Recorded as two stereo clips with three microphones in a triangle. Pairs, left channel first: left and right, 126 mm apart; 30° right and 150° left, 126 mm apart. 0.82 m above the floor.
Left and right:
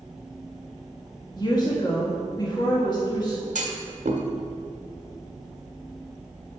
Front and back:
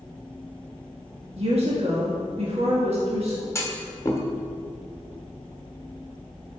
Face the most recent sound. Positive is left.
turn(degrees=-100)